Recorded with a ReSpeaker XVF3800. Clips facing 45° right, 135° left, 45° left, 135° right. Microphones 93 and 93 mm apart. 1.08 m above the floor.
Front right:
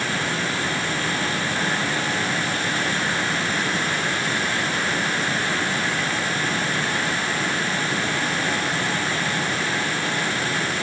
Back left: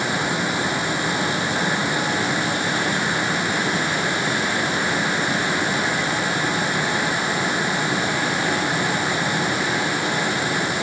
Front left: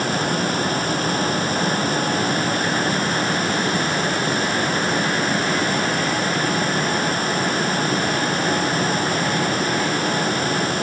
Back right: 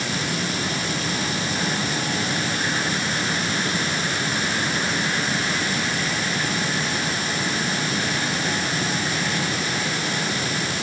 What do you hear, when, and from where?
Only background noise.